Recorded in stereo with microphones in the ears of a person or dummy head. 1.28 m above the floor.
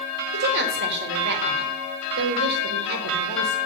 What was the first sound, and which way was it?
A woman speaking, 60° right (ahead or behind).